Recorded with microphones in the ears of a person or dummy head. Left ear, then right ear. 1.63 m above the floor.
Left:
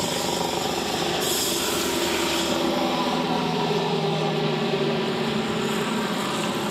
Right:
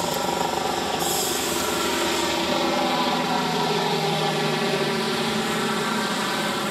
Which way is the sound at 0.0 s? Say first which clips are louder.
Right 1 dB; 50° right (ahead or behind).